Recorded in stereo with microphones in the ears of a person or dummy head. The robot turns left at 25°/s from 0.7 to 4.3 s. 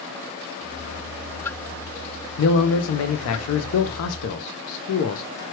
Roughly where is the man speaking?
Behind left.